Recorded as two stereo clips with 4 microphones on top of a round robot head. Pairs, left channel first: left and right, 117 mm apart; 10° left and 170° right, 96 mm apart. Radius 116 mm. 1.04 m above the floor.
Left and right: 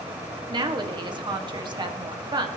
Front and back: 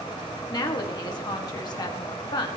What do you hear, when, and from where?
0.5 s a woman speaking: 40° right, 1.8 m